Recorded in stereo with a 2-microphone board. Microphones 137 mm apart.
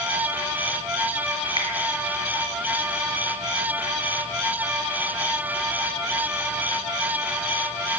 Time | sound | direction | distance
1.6 | a finger snap | 40° right (ahead or behind) | 4.5 m